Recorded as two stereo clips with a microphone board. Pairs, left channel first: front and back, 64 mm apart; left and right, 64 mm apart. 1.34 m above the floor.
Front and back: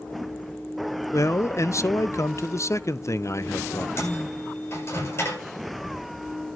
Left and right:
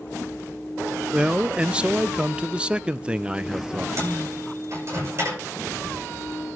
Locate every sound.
1.1 s a man speaking: 20° right, 0.5 m
4.0 s a microwave: 45° right, 7.5 m